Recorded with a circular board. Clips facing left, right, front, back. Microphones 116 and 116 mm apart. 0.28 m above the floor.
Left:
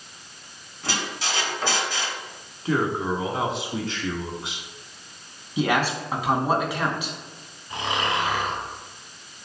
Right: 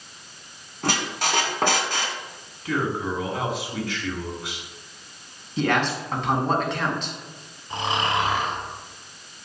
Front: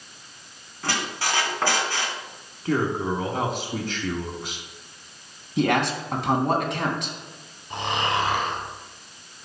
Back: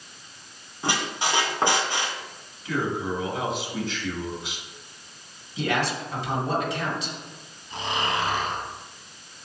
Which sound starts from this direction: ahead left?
A man speaking, at 2.6 s.